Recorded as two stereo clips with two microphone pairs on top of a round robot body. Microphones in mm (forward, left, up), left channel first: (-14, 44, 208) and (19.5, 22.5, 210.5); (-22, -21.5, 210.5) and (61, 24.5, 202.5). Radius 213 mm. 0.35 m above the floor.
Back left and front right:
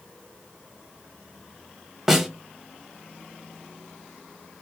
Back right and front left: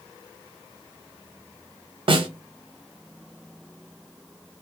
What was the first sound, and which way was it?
A snare drum, 50° left.